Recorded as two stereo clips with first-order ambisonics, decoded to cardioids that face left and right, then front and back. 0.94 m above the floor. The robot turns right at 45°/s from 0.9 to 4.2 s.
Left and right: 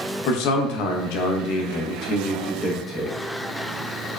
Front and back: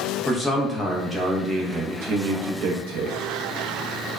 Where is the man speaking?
90° left, 0.6 m; by 3.2 s 170° right, 0.6 m.